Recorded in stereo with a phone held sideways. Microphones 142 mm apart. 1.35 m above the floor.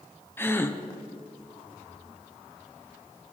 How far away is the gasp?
About 0.5 m.